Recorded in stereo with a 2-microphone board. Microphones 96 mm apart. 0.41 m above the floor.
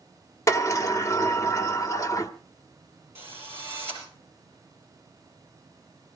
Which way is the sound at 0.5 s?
30° left (ahead or behind).